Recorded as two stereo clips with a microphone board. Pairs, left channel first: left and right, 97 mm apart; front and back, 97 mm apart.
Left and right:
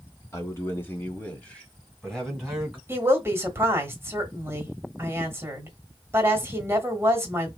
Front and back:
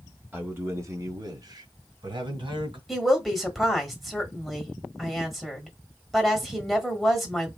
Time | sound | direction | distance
0.3 | a man speaking | 125° left | 1.3 m
2.9 | a woman speaking | 90° right | 1.2 m